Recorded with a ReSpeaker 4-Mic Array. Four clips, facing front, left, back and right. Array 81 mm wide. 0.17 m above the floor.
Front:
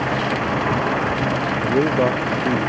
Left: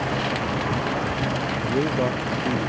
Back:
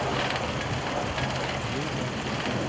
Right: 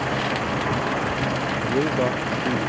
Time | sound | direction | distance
0.0 | an engine running | 10° right | ?
1.6 | a man speaking | 5° right | ?